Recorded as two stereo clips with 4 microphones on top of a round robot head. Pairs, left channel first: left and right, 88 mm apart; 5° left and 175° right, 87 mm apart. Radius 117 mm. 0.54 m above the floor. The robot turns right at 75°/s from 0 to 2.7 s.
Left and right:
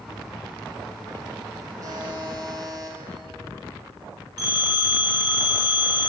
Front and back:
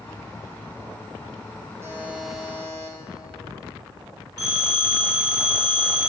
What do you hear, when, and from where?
1.8 s a buzzer: 125° right, 1.8 m; by 3.0 s 60° right, 1.8 m
4.4 s a phone ringing: 130° right, 3 m